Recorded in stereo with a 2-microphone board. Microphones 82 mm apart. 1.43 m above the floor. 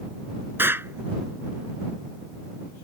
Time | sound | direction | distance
0.6 | an explosion | 30° right (ahead or behind) | ?